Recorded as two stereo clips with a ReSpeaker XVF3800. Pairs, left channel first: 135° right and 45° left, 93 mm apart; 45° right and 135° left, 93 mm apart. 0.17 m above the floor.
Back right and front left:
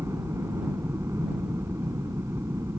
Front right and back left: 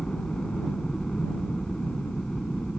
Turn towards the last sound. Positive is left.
turn(degrees=30)